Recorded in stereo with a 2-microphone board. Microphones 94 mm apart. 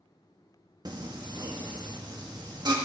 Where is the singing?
50° right (ahead or behind), 1.7 m.